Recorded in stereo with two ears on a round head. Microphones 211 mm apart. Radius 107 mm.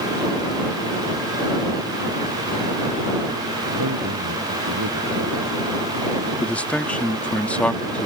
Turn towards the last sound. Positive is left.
turn(degrees=5)  # may be behind; listen again after turning